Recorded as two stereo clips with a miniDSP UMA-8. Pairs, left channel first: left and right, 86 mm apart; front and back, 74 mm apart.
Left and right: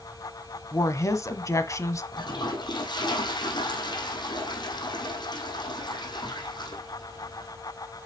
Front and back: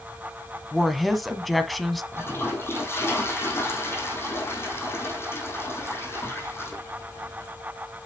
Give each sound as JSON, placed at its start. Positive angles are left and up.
{"t": 0.7, "sound": "a woman speaking", "azimuth_deg": 90, "distance_m": 1.3}
{"t": 2.1, "sound": "a toilet flushing", "azimuth_deg": 55, "distance_m": 3.0}